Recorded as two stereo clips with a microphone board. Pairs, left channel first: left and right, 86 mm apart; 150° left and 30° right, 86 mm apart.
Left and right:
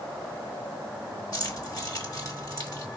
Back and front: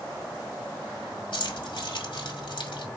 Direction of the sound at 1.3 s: 135° left.